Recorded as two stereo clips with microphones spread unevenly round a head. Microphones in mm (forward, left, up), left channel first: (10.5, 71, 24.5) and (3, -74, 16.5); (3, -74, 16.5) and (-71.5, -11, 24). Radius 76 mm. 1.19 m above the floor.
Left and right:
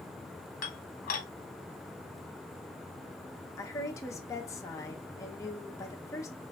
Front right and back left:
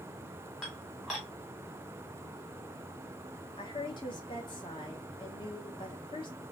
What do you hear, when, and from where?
0.6 s dishes clattering: 50° left, 1.0 m
3.6 s a woman speaking: 15° left, 0.9 m